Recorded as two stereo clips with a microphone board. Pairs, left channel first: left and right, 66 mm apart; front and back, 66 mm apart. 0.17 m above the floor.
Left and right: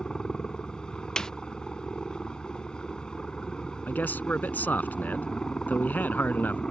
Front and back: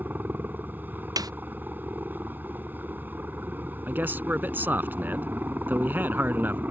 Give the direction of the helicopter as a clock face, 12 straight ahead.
7 o'clock.